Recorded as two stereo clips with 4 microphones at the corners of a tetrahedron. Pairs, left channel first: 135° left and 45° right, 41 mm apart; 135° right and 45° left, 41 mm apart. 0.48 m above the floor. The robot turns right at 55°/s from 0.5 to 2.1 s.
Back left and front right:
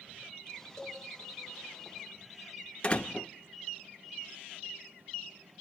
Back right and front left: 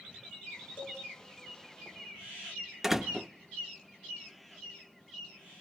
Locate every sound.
0.8 s a cowbell: 150° right, 3.5 m; by 1.0 s 140° right, 3.5 m
2.8 s a door slam: 120° left, 0.5 m